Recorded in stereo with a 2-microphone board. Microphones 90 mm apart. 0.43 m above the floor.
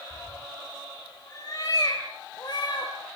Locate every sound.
0.1 s a cat meowing: 40° left (ahead or behind), 5.5 m; by 2.9 s 55° left (ahead or behind), 6 m